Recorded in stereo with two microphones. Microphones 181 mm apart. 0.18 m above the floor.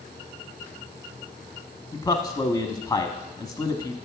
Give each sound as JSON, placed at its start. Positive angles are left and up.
{"t": 1.9, "sound": "a man speaking", "side_deg": 20, "distance_m": 1.0}